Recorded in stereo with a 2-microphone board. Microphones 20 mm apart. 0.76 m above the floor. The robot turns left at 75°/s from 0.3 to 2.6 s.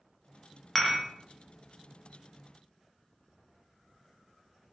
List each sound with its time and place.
0.8 s dishes clattering: 10° left (ahead or behind), 0.5 m; by 1.0 s 30° left (ahead or behind), 0.5 m